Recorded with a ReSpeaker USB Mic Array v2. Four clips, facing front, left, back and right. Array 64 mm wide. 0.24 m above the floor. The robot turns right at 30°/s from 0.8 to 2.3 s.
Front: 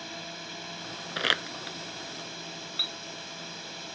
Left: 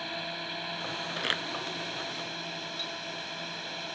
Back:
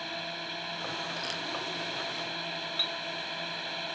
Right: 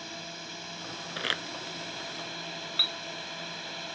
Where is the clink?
85° right.